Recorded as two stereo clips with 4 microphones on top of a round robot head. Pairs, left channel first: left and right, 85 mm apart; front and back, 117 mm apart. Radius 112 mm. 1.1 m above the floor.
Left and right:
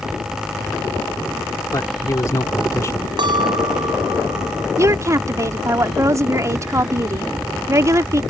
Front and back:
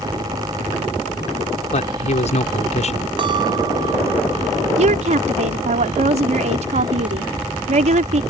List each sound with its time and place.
1.7 s a man speaking: 25° left
3.2 s a clink: 125° right
4.8 s a woman speaking: 145° right